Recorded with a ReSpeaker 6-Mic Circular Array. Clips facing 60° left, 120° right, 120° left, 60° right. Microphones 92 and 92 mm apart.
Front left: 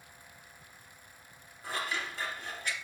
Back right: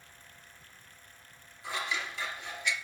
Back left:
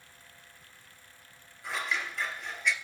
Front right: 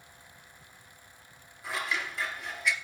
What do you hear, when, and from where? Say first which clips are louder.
1.6 s scissors: even, even; 25° left, 2.5 m